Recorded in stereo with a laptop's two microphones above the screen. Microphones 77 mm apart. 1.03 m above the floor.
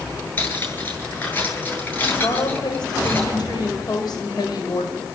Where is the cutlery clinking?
25° left (ahead or behind), 9 m.